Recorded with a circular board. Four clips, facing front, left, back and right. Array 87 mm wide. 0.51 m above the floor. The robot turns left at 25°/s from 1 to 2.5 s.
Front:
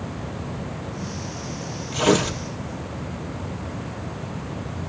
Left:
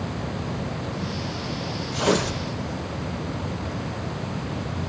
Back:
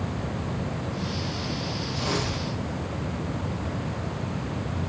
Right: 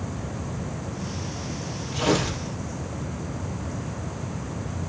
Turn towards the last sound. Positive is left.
turn(degrees=-20)